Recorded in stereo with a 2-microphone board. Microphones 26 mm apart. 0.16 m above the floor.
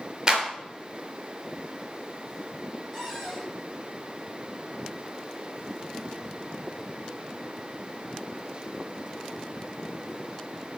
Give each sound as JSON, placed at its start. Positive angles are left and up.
{"t": 0.3, "sound": "a clap", "side_deg": -25, "distance_m": 3.0}
{"t": 2.9, "sound": "a cupboard door", "side_deg": 0, "distance_m": 6.5}